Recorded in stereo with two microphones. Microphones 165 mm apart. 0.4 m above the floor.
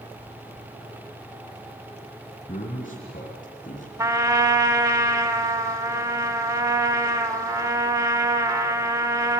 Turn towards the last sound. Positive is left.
turn(degrees=-15)  # may be behind; listen again after turning